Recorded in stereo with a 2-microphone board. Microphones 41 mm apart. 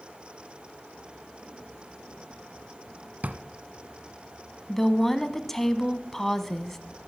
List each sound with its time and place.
3.2 s a drawer: 45° right (ahead or behind), 0.9 m
4.7 s a woman speaking: 10° left (ahead or behind), 1.1 m